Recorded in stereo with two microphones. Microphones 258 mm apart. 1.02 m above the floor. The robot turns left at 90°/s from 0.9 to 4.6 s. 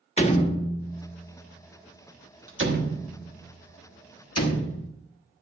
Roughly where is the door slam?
Left.